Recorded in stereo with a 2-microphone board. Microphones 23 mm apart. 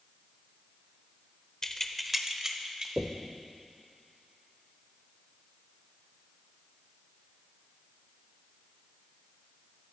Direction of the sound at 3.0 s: 10° right (ahead or behind).